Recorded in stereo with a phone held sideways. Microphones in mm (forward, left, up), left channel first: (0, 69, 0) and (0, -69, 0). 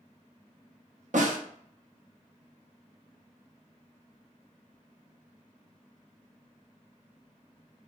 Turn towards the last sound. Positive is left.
turn(degrees=-65)  # may be behind; listen again after turning